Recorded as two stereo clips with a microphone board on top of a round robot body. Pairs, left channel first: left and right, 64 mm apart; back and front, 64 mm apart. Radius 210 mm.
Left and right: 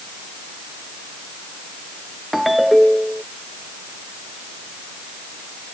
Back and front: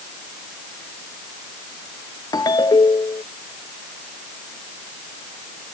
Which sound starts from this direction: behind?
A ringtone, at 2.3 s.